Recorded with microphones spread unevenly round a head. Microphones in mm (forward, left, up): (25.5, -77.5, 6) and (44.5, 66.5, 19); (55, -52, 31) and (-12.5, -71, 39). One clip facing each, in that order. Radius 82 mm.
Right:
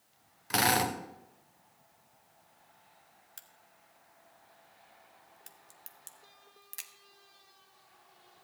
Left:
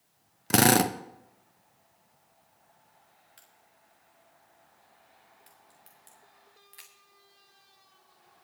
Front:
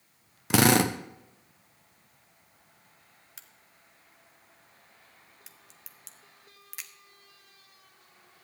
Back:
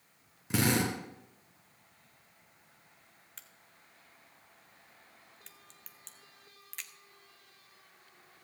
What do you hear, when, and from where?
0.5 s a drill: 45° left, 0.8 m
3.4 s a crack: 70° right, 1.2 m